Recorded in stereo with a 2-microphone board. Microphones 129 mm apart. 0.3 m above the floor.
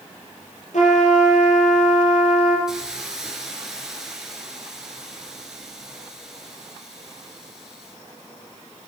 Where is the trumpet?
70° left (ahead or behind), 5 m.